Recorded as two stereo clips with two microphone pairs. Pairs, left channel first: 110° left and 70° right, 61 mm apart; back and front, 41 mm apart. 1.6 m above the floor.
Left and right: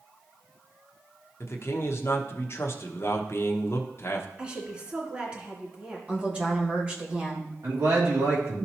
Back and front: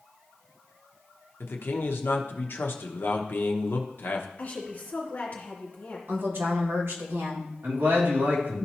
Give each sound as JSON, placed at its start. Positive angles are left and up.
{"t": 1.4, "sound": "a man speaking", "azimuth_deg": 150, "distance_m": 0.8}
{"t": 4.4, "sound": "a woman speaking", "azimuth_deg": -140, "distance_m": 2.5}
{"t": 6.1, "sound": "a woman speaking", "azimuth_deg": 0, "distance_m": 1.8}
{"t": 7.6, "sound": "a man speaking", "azimuth_deg": -30, "distance_m": 2.5}